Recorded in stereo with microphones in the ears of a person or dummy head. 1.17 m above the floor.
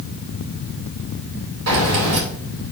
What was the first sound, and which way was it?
Keys jangling, 80° right.